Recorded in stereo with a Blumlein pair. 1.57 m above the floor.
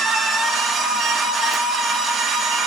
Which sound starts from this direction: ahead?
A machine running, at 0.0 s.